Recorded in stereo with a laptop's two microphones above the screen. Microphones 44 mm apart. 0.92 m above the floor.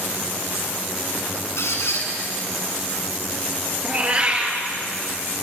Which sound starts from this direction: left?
A squeak, at 1.6 s.